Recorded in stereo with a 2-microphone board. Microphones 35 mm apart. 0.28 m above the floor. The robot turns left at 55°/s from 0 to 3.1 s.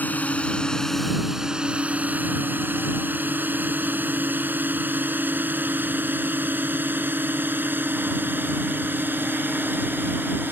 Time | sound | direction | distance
0.0 | a drone | 55° left (ahead or behind) | ?